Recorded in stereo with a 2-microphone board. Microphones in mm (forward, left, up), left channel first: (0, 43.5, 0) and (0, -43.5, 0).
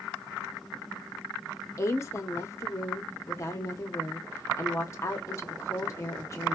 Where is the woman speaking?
35° left (ahead or behind), 0.7 m.